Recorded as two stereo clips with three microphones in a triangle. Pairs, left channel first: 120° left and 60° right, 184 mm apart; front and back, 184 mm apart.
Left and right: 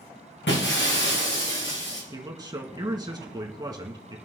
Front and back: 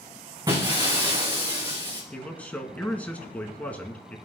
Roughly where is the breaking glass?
Left.